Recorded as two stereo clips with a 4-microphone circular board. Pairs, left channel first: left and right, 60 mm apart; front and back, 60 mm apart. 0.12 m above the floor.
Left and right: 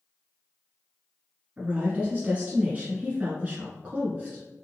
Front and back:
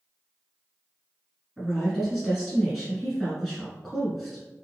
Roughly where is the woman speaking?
Right.